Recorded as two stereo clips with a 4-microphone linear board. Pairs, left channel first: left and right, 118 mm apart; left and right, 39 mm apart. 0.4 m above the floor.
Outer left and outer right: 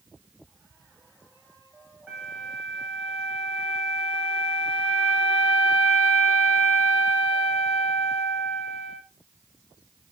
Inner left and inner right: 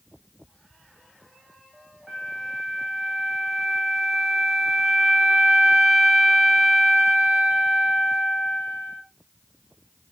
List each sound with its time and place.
2.1 s a flute: 5° right (ahead or behind), 8.5 m